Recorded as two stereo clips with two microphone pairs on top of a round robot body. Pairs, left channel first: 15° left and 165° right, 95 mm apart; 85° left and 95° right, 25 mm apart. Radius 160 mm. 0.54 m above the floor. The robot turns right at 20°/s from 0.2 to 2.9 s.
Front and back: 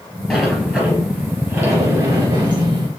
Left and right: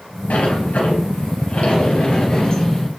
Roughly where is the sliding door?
Left.